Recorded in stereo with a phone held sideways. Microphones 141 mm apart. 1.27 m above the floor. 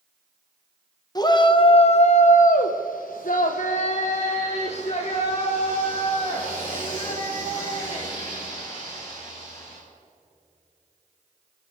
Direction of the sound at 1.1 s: 30° left (ahead or behind).